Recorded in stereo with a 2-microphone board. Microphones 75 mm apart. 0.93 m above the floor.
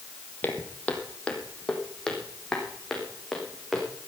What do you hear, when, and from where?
0.4 s footsteps: 25° left (ahead or behind), 2 m; by 3.9 s centre (ahead or behind), 4.5 m